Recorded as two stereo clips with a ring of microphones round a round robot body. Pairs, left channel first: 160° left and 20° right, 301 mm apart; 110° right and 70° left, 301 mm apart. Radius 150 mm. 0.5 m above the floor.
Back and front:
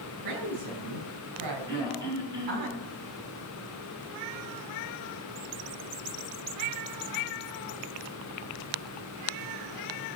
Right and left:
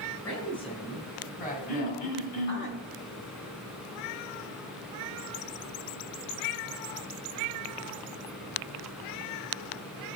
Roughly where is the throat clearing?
Right.